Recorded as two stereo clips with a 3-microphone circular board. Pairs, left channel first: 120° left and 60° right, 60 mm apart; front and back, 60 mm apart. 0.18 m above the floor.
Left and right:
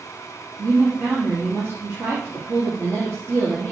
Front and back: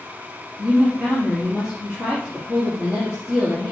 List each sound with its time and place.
0.6 s a woman speaking: 95° right, 4 m